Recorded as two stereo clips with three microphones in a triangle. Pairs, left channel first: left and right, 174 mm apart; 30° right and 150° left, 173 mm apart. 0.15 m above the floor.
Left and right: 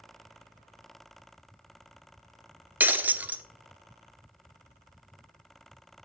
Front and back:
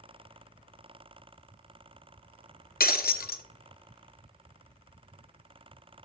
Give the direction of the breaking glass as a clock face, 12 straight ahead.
12 o'clock.